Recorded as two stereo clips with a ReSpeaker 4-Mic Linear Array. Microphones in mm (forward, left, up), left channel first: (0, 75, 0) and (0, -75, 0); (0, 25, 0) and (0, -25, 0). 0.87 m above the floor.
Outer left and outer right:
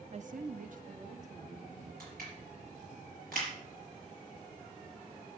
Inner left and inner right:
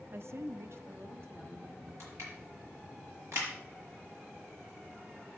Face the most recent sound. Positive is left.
turn(degrees=-75)  # may be behind; listen again after turning